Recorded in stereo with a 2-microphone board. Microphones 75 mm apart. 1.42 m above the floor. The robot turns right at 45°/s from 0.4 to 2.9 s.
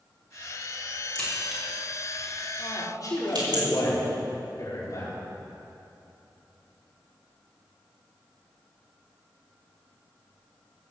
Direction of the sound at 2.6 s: 60° left (ahead or behind).